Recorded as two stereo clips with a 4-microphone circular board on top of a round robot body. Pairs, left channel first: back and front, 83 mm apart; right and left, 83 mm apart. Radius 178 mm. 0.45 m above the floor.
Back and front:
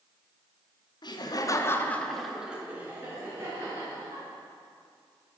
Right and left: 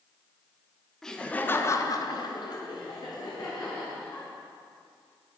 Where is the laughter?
175° right, 1.1 m; by 4.3 s 50° right, 2.5 m.